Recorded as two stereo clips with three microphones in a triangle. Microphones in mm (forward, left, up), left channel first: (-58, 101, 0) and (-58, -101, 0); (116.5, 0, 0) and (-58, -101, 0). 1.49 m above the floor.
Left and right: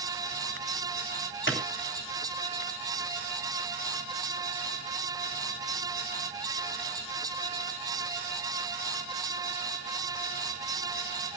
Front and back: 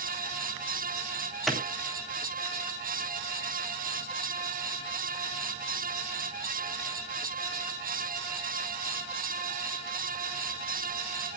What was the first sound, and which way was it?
A clap, 120° left.